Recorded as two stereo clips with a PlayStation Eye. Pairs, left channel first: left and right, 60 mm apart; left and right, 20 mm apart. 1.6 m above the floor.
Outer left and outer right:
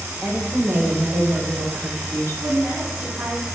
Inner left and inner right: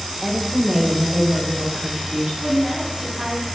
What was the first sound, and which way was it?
A woman speaking, 5° right (ahead or behind).